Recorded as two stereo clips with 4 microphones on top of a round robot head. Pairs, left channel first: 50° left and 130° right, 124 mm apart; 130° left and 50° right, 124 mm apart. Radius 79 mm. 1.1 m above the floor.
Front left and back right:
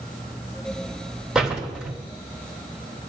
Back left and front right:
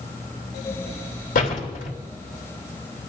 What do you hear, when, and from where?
1.4 s a door slam: 140° left, 3 m